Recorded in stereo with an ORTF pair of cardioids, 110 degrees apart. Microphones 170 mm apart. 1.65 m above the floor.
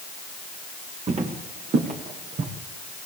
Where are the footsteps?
40° right, 5.5 m; by 2.5 s 50° right, 6 m.